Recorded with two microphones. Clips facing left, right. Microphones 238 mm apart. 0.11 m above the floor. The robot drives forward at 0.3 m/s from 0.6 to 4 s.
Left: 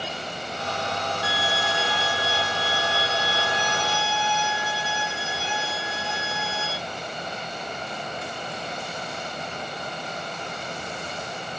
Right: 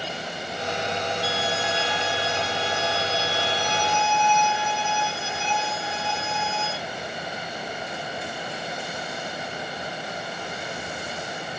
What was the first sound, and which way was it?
A violin, 15° left (ahead or behind).